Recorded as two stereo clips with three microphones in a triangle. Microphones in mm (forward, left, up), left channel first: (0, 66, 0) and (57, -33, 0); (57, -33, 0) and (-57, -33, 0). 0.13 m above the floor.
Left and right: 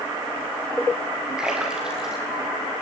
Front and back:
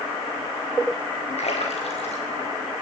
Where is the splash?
25° left, 5 m.